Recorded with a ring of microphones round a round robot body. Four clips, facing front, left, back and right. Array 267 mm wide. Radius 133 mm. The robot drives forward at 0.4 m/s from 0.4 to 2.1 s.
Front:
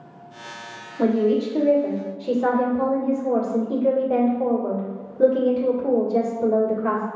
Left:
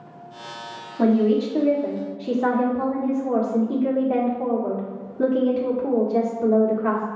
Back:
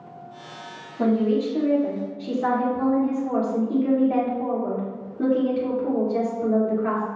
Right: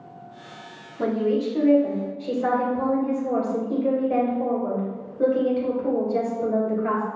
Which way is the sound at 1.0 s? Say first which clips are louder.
Left 4 dB, front 2 dB; 75° left.